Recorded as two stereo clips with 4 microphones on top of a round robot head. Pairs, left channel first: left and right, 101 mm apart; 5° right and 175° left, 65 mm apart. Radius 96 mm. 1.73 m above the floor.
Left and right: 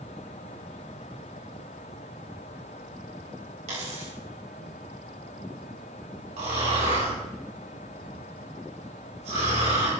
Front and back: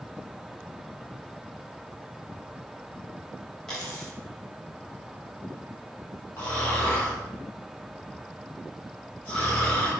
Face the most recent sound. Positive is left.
turn(degrees=-70)